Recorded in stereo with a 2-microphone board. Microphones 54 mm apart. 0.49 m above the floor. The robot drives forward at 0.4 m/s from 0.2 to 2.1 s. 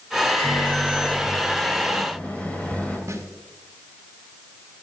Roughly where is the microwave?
Centre.